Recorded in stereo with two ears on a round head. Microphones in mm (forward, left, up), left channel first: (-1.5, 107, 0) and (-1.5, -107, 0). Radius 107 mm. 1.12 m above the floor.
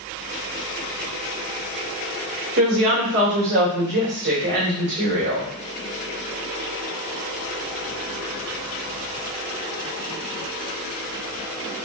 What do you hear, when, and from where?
2.6 s a woman speaking: 45° right (ahead or behind), 2 m